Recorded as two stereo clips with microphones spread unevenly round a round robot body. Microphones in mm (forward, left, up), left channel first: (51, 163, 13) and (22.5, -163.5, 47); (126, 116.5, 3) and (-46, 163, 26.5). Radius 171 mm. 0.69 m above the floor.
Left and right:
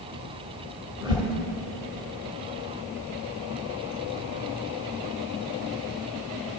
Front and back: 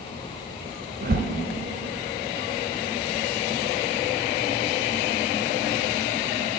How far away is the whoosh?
About 1.4 m.